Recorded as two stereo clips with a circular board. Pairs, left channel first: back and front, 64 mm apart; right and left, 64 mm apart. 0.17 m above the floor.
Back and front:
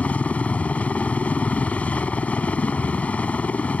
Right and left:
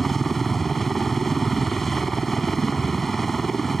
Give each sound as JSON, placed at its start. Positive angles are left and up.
{"t": 0.0, "sound": "a helicopter", "azimuth_deg": -170}